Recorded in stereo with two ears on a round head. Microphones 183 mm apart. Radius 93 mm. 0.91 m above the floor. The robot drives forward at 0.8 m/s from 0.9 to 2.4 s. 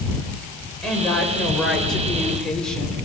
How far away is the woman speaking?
About 4.5 m.